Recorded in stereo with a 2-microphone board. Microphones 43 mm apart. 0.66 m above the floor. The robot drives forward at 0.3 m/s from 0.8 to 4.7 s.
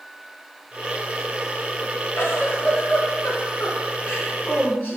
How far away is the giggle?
About 3 m.